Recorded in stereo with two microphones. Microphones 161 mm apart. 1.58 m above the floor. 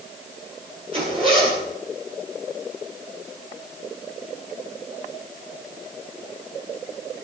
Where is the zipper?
30° right (ahead or behind), 10 m.